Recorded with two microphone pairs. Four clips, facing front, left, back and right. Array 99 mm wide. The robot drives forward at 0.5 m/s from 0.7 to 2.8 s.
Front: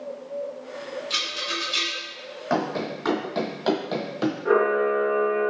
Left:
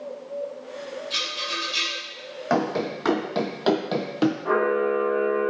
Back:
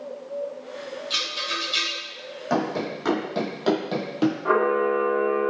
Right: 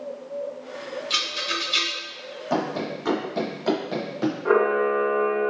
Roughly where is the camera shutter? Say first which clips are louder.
Right 6 dB, front 2 dB; behind right.